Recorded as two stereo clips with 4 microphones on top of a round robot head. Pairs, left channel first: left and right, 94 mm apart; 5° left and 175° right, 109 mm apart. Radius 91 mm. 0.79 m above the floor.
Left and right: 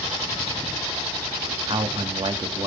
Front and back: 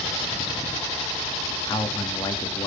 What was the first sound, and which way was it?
A man speaking, 60° right.